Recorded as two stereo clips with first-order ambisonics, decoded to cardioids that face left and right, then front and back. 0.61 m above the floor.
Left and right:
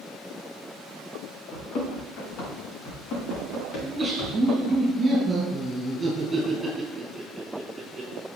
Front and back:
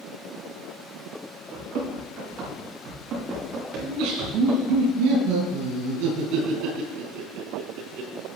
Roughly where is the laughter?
Behind.